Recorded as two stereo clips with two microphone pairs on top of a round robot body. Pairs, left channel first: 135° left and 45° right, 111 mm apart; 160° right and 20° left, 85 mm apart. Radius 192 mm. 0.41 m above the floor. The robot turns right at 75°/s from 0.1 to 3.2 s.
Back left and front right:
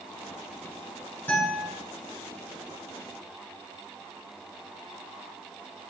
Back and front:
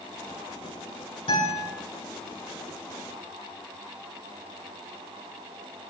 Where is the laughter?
I don't hear laughter.